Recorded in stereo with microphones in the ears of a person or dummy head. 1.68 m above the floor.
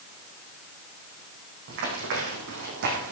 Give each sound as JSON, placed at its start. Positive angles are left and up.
{"t": 1.7, "sound": "running footsteps", "side_deg": -55, "distance_m": 4.5}